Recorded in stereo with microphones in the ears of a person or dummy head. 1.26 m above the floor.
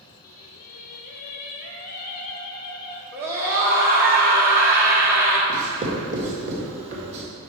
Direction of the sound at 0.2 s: 50° left (ahead or behind).